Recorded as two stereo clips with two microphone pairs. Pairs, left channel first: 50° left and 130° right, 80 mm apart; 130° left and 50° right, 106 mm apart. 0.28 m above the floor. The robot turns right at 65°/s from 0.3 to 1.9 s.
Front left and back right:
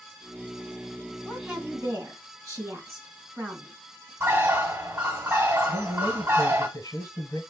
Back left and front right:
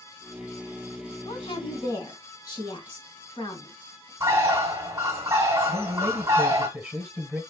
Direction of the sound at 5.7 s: 20° left.